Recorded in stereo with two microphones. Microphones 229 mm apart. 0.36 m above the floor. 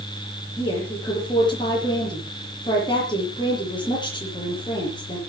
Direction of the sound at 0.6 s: 20° left (ahead or behind).